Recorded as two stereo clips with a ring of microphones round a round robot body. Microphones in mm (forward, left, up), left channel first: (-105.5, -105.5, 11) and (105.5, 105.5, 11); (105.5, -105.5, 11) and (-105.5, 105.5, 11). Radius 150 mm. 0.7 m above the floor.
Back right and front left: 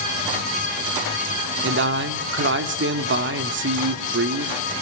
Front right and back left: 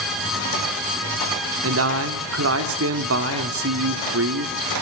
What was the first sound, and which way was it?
A man speaking, 95° left.